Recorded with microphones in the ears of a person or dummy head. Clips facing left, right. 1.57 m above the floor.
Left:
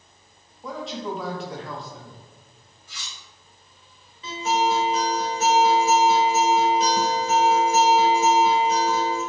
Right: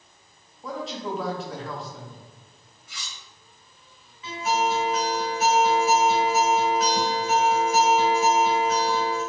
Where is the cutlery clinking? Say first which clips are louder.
Right 1 dB; 25° left (ahead or behind), 1.7 m.